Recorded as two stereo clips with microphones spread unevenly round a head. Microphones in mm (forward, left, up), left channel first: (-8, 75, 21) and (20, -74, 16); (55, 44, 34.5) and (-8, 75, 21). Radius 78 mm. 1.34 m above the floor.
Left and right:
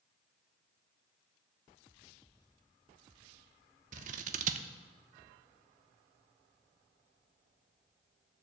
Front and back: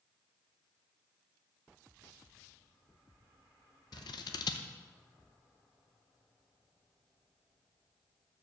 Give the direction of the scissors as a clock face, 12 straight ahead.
1 o'clock.